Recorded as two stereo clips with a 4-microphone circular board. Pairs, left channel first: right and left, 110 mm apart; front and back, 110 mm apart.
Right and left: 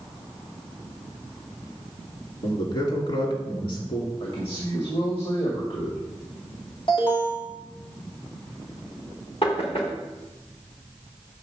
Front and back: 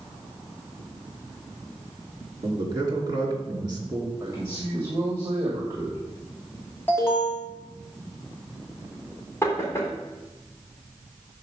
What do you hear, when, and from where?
2.4 s a man speaking: 125° right, 2.5 m
4.2 s a man speaking: 120° right, 1.9 m
6.9 s an alarm: 65° right, 2 m
9.4 s knocking: 60° right, 2 m